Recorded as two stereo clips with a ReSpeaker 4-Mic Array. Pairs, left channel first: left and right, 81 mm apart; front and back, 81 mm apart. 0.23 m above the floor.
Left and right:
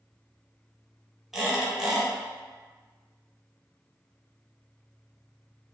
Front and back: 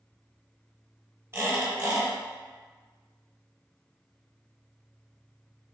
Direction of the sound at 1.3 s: 170° right.